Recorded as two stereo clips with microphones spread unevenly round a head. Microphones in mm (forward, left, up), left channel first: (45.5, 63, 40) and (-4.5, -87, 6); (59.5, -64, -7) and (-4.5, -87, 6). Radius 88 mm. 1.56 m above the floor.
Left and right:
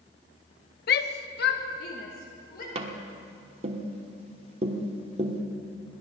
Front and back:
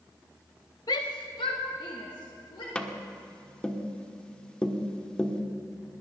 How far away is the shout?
About 0.6 m.